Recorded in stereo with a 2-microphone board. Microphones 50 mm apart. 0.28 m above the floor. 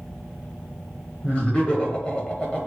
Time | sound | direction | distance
1.2 | laughter | 25° left (ahead or behind) | 1.1 m